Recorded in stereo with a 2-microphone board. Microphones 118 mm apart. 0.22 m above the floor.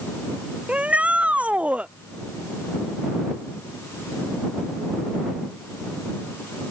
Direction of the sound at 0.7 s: 10° right (ahead or behind).